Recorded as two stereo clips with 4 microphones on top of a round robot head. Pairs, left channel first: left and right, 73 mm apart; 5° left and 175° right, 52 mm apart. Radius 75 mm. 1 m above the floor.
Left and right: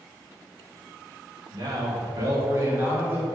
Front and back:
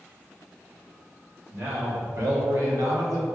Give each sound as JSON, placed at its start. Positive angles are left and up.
{"t": 1.5, "sound": "a man speaking", "azimuth_deg": -120, "distance_m": 1.8}